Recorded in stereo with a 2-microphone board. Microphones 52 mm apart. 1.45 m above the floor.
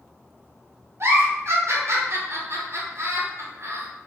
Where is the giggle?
55° right (ahead or behind), 1.0 m.